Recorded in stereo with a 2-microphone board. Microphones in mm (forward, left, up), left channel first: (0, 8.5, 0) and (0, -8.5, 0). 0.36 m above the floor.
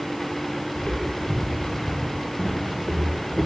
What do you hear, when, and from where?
0.8 s footsteps: 80° left, 3.5 m; by 3.5 s 50° left (ahead or behind), 3.5 m